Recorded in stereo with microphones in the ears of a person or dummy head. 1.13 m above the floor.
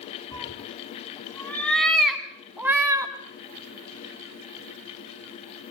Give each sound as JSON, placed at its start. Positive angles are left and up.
{"t": 0.3, "sound": "a cat meowing", "side_deg": 20, "distance_m": 2.5}